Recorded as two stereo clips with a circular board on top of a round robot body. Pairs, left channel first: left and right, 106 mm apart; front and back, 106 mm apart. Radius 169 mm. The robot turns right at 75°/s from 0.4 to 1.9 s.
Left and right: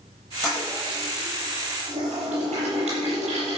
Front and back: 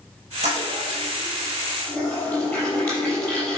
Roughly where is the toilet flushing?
Behind.